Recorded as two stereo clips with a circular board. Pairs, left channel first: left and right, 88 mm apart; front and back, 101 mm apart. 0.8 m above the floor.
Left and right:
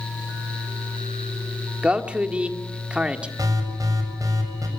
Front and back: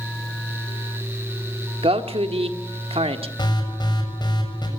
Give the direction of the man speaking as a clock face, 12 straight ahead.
6 o'clock.